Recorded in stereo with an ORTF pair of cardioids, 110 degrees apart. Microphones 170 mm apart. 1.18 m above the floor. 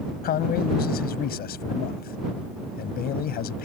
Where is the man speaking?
65° left.